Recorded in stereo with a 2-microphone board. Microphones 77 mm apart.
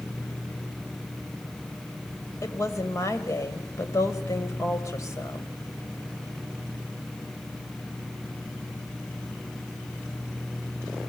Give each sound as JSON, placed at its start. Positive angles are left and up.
{"t": 2.4, "sound": "a woman speaking", "side_deg": 40, "distance_m": 3.0}